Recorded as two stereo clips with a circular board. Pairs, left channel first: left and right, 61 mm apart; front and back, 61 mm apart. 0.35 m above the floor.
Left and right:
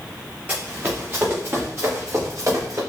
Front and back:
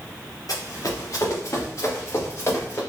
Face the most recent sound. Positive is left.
turn(degrees=-55)